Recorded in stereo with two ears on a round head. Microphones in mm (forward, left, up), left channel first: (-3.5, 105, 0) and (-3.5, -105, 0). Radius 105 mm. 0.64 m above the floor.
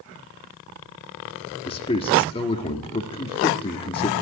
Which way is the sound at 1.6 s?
20° left (ahead or behind).